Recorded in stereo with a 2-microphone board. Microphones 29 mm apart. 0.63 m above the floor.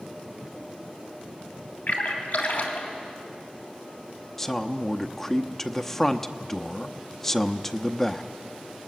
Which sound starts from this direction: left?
A splash, at 1.9 s.